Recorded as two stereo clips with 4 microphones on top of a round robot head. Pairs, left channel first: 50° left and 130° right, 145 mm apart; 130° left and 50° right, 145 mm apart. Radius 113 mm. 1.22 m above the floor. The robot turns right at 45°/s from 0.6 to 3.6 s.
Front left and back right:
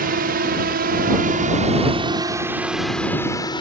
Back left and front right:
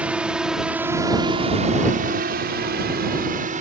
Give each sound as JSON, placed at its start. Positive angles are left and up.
{"t": 0.0, "sound": "a drone", "azimuth_deg": -130}